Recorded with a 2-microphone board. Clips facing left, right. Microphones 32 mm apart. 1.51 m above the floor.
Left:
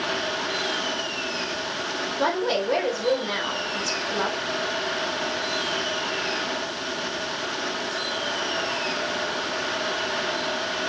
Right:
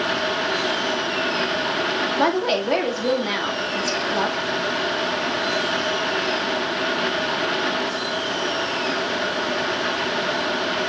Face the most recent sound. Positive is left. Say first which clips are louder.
# right 1 dB
turn(degrees=-55)  # may be behind; listen again after turning